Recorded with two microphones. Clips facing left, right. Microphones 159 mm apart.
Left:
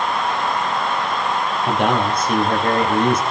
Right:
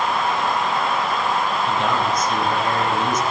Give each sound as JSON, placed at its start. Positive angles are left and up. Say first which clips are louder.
{"t": 1.7, "sound": "a man speaking", "louder": "left 6 dB", "side_deg": 65, "distance_m": 4.5}